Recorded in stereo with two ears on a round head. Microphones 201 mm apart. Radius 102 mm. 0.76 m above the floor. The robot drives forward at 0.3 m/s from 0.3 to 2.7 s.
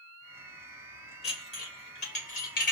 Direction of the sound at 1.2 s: 25° left (ahead or behind).